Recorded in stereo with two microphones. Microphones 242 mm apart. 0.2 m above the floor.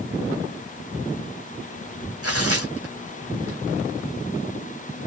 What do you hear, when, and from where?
2.2 s tearing paper: 70° right (ahead or behind), 3 m